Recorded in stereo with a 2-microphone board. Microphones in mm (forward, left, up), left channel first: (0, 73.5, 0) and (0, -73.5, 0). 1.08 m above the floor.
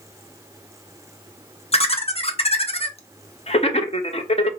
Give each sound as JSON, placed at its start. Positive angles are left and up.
{"t": 1.7, "sound": "laughter", "side_deg": 45, "distance_m": 0.6}